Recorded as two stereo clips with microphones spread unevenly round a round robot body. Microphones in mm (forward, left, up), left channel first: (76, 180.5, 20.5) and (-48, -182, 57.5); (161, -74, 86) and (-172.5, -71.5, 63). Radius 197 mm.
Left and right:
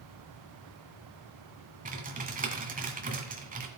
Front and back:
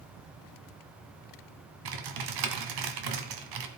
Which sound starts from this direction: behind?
Typing on a keyboard, at 1.9 s.